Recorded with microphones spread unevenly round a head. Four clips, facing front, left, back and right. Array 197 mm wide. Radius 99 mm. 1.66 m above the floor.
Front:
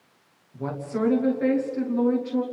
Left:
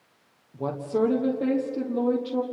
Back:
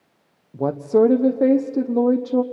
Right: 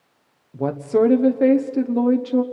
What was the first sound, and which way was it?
A woman speaking, 155° right.